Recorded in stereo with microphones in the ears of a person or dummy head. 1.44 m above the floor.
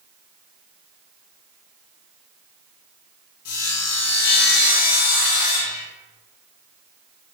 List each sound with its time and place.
3.5 s sawing: 55° left (ahead or behind), 1.1 m